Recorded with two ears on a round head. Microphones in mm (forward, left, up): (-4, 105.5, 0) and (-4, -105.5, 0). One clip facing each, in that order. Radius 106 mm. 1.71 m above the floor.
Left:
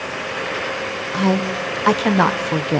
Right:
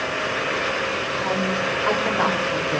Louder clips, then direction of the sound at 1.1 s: Left 7 dB; 65° left (ahead or behind).